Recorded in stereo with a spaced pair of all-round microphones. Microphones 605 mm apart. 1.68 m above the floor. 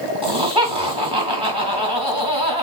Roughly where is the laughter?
Right.